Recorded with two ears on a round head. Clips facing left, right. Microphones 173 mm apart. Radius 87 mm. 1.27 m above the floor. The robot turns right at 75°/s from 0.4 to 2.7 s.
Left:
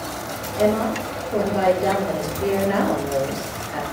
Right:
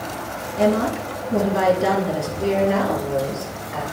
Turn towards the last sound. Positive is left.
turn(degrees=15)